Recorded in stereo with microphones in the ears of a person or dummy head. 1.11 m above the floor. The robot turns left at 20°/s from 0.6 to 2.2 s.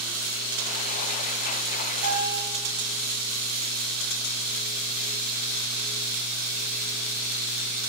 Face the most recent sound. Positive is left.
turn(degrees=-75)  # may be behind; listen again after turning